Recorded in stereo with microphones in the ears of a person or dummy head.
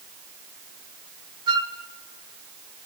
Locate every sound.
1.5 s a flute: 25° right (ahead or behind), 1.9 m